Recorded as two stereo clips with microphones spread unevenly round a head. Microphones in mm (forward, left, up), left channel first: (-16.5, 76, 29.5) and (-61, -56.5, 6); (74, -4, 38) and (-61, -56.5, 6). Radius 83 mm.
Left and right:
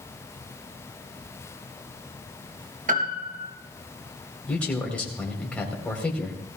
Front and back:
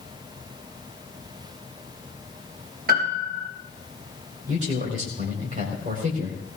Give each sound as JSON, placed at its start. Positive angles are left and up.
{"t": 2.9, "sound": "a piano", "azimuth_deg": -140, "distance_m": 3.5}
{"t": 4.5, "sound": "a man speaking", "azimuth_deg": 155, "distance_m": 4.5}